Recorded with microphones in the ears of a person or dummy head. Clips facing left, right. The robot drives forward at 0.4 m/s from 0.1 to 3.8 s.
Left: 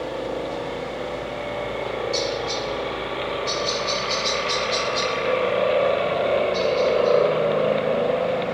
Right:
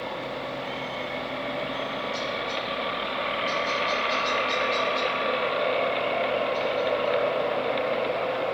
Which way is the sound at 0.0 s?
70° left (ahead or behind).